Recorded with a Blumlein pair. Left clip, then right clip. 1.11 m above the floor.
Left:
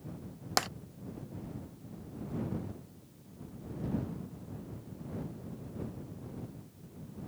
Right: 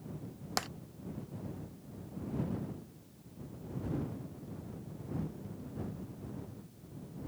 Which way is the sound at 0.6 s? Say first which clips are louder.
Left 5 dB; 15° left.